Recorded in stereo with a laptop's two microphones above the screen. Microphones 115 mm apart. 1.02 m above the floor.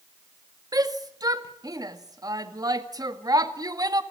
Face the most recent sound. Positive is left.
turn(degrees=-35)  # may be behind; listen again after turning